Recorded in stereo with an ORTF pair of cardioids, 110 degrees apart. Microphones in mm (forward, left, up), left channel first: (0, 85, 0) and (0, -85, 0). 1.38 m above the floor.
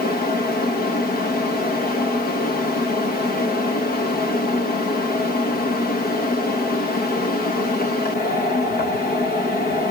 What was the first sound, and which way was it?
A fan, 65° left.